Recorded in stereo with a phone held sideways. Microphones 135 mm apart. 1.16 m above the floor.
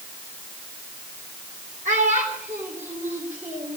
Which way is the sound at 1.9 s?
75° right (ahead or behind).